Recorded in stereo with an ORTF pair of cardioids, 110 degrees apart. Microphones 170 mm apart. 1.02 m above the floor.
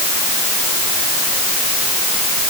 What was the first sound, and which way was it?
Only background noise.